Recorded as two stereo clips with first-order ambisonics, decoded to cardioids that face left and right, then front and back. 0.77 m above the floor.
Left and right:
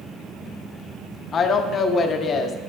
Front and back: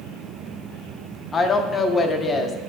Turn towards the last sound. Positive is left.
turn(degrees=60)